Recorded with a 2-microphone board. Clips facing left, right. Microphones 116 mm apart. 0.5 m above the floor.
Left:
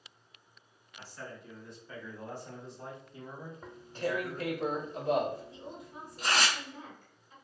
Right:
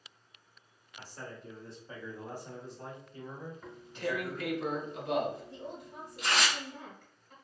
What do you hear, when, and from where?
1.0 s a man speaking: 45° right (ahead or behind), 1.2 m; by 4.5 s 45° left (ahead or behind), 1.3 m
3.6 s tearing paper: 40° left (ahead or behind), 0.7 m
5.5 s a woman speaking: 55° right (ahead or behind), 1.3 m